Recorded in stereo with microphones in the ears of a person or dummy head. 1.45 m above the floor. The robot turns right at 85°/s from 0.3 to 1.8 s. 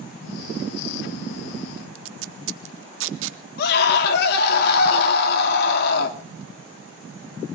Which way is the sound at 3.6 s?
55° left (ahead or behind).